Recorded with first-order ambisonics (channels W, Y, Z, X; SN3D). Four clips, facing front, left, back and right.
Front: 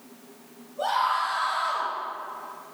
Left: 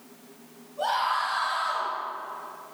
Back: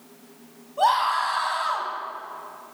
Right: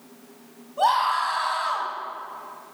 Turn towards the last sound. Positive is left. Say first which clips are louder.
# right 5 dB, back 4 dB
turn(degrees=-135)